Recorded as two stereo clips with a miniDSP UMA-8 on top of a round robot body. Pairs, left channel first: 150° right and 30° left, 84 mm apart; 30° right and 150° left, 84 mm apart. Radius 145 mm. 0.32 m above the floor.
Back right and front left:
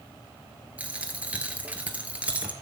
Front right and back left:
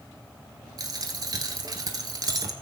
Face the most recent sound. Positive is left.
turn(degrees=105)